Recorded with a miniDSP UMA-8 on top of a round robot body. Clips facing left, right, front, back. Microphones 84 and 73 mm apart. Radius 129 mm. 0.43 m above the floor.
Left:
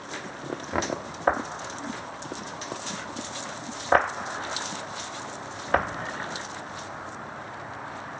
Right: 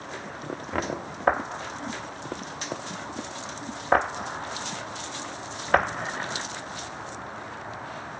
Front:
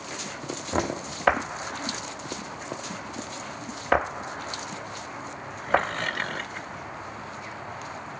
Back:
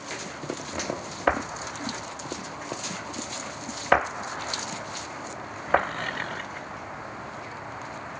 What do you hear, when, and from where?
0.7 s knocking: 10° left, 0.7 m